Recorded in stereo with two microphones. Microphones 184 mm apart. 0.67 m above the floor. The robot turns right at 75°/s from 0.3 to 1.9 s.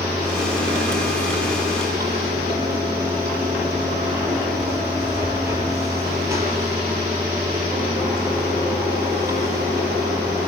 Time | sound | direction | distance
0.0 | running water | 135° right | 9 m